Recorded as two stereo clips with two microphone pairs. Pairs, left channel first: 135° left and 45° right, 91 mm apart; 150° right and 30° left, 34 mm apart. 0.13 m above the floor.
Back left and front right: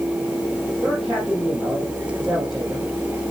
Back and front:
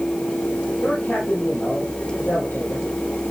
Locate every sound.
0.8 s a man speaking: 130° right, 4 m